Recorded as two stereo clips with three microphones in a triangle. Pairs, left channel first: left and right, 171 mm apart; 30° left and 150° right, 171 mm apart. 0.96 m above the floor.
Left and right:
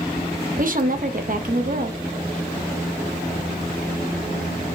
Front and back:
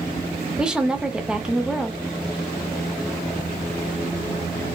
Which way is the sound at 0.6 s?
65° right.